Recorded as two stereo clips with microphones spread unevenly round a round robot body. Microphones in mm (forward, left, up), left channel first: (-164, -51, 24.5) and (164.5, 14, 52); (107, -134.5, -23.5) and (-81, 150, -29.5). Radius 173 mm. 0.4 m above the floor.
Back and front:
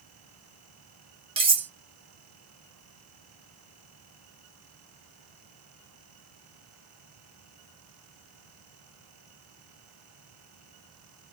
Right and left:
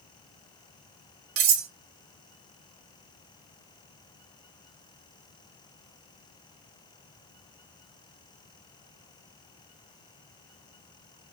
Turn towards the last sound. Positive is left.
turn(degrees=85)